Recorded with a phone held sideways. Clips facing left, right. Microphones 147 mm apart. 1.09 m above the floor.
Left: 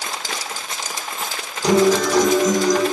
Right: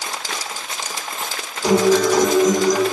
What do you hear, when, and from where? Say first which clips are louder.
1.6 s a guitar: right 1 dB; 5° right (ahead or behind), 0.7 m